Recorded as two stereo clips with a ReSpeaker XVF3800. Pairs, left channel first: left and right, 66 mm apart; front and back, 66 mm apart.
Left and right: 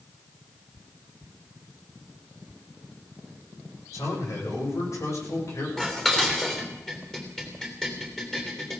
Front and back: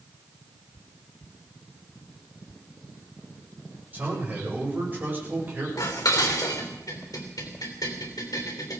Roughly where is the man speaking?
Behind left.